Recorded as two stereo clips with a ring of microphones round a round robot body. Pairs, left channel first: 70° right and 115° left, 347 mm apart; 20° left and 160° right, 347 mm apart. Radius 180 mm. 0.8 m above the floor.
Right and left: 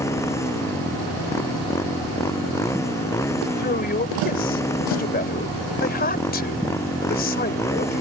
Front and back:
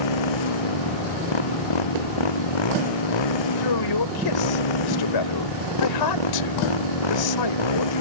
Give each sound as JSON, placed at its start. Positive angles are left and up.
{"t": 0.0, "sound": "a motorcycle", "azimuth_deg": 15}
{"t": 3.6, "sound": "a man speaking", "azimuth_deg": 0}